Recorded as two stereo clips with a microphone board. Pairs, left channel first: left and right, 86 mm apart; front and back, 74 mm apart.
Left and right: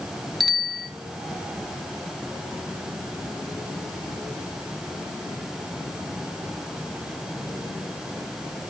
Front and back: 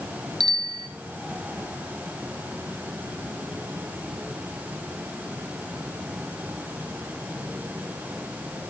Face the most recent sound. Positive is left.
turn(degrees=180)